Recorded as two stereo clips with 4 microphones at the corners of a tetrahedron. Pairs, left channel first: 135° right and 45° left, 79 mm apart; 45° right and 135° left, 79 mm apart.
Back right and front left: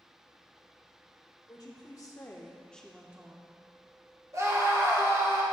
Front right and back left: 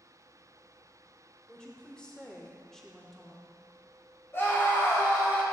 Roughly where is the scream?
Ahead.